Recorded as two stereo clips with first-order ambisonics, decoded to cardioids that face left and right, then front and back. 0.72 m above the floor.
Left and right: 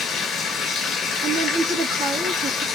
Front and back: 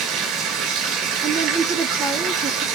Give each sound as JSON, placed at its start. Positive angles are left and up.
{"t": 0.0, "sound": "running water", "azimuth_deg": 155, "distance_m": 3.0}
{"t": 1.2, "sound": "a woman speaking", "azimuth_deg": -130, "distance_m": 1.1}